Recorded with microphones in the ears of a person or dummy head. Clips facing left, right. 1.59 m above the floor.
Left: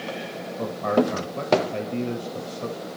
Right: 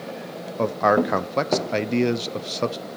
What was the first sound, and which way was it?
A man speaking, 75° right (ahead or behind).